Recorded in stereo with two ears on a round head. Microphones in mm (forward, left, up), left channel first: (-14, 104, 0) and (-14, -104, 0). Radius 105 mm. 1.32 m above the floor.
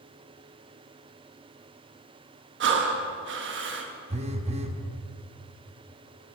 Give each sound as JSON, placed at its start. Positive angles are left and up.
{"t": 2.6, "sound": "breathing", "side_deg": -55, "distance_m": 1.2}
{"t": 4.1, "sound": "a phone buzzing", "side_deg": -30, "distance_m": 0.8}